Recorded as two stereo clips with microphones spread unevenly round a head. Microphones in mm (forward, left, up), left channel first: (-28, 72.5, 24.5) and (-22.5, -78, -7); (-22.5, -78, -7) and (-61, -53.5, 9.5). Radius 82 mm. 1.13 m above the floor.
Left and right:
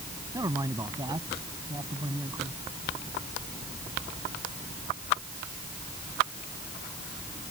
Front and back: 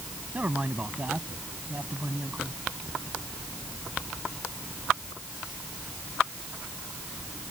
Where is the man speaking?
155° right.